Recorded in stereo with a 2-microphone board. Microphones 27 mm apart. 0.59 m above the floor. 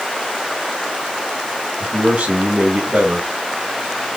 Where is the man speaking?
70° right (ahead or behind), 3 m.